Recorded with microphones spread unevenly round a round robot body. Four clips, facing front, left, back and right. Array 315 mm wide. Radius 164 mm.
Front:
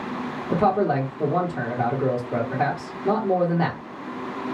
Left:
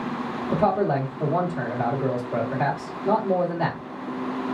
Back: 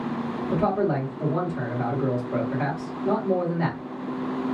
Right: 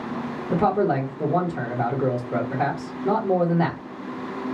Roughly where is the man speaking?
Ahead right.